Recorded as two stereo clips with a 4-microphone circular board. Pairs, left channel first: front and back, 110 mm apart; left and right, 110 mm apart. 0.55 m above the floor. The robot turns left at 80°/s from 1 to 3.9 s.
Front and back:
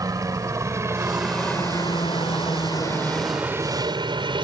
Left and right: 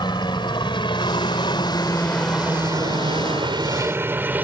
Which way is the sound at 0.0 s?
125° left.